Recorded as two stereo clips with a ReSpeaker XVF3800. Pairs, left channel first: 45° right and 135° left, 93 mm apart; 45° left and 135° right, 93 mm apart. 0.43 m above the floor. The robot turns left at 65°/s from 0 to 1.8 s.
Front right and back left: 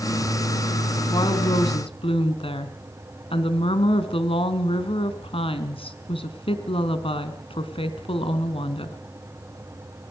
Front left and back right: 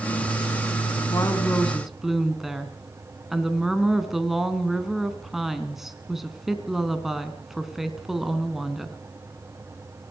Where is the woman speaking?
5° right, 3.5 m; by 9.0 s 50° right, 3.5 m.